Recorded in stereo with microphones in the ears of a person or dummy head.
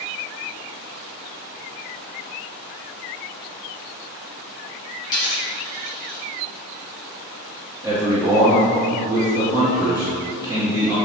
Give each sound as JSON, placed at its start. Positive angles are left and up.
{"t": 5.0, "sound": "a dropped coin", "side_deg": 55, "distance_m": 1.6}
{"t": 7.8, "sound": "a man speaking", "side_deg": -15, "distance_m": 0.9}